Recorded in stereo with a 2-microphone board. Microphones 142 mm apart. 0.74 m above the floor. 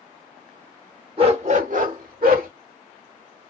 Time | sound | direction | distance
1.2 | a dog barking | 40° right (ahead or behind) | 0.7 m